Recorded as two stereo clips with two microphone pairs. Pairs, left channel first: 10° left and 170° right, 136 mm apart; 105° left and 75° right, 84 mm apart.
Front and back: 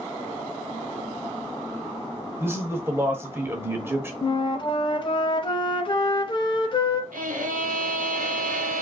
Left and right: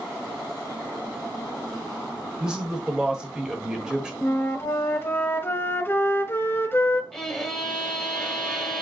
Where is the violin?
170° right, 1.1 m.